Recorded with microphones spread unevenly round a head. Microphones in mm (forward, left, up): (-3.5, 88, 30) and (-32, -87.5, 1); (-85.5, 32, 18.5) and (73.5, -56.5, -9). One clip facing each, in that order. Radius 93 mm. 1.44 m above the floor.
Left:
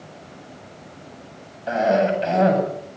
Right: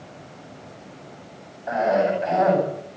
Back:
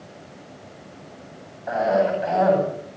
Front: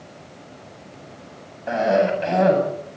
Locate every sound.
1.7 s a cough: 25° left, 8.5 m